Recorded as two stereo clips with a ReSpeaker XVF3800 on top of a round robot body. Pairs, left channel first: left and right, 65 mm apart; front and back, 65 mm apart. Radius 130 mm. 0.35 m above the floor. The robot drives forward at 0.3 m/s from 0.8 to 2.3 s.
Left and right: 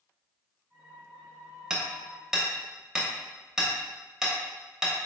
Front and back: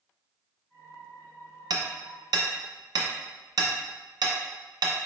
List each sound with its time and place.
1.7 s hammering: 170° right, 0.5 m; by 5.0 s 175° right, 0.7 m